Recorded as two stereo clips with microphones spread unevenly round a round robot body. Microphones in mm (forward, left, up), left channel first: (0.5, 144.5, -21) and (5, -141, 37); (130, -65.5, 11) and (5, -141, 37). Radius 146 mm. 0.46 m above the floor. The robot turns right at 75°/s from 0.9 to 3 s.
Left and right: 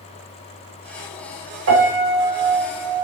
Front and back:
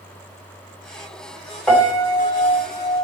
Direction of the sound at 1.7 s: 50° right.